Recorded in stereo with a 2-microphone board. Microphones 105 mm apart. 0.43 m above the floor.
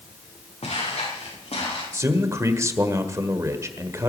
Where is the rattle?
No rattle in this recording.